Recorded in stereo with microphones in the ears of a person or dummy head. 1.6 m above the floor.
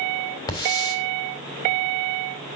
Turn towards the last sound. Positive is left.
turn(degrees=25)  # may be behind; listen again after turning